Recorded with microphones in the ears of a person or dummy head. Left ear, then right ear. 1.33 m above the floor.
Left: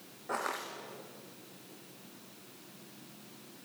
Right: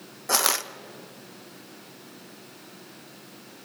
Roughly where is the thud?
I don't hear a thud.